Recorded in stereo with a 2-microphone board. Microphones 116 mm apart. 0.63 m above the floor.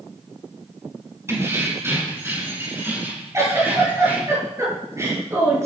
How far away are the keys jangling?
About 4.5 m.